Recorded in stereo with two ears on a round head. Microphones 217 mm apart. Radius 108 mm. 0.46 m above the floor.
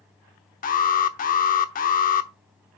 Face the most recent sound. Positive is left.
turn(degrees=35)  # may be behind; listen again after turning